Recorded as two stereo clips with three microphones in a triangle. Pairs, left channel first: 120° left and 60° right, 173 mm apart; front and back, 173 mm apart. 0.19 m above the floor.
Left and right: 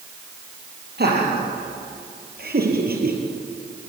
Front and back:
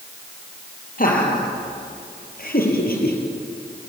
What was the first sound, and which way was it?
Laughter, 40° right.